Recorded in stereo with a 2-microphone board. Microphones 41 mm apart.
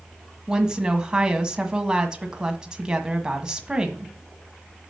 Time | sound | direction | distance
0.5 | a woman speaking | 20° right (ahead or behind) | 1.5 m